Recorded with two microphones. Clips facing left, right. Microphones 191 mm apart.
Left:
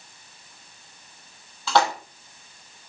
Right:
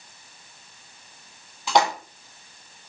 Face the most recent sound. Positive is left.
turn(degrees=-15)  # may be behind; listen again after turning